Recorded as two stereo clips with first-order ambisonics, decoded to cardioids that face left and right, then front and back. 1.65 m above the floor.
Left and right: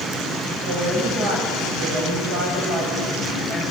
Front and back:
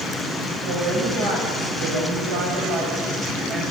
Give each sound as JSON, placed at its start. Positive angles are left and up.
{"t": 0.7, "sound": "a woman speaking", "azimuth_deg": -125, "distance_m": 9.0}